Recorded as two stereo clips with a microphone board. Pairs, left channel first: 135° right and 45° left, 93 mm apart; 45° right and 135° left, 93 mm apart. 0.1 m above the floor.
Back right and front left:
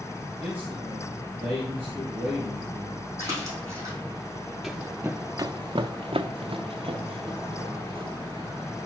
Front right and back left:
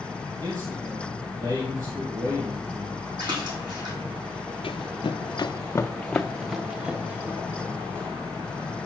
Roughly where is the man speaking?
Left.